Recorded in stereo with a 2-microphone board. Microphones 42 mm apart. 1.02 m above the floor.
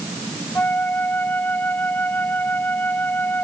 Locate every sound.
0.6 s a flute: 55° left (ahead or behind)